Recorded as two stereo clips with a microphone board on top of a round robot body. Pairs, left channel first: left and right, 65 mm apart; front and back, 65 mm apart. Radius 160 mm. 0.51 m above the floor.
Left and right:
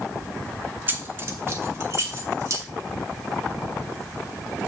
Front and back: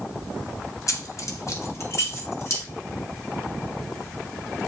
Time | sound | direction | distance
0.9 | keys jangling | 30° right | 1.3 m